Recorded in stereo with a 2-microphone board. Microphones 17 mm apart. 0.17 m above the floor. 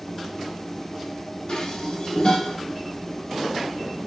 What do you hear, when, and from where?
1.5 s dishes clattering: 45° left (ahead or behind), 1.2 m